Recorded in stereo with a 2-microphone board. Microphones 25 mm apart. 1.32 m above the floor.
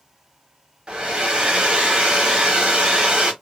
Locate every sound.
0.9 s a hair dryer: 40° right (ahead or behind), 1.0 m